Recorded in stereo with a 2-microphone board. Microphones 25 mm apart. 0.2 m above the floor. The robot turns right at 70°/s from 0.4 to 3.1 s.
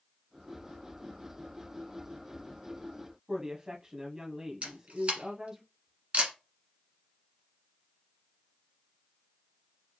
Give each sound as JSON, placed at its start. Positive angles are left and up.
{"t": 3.3, "sound": "a woman speaking", "side_deg": -25, "distance_m": 1.1}
{"t": 4.6, "sound": "a camera shutter", "side_deg": -50, "distance_m": 1.5}